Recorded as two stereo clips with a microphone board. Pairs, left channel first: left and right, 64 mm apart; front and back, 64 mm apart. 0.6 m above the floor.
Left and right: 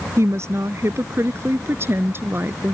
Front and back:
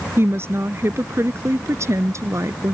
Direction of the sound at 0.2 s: 130° right.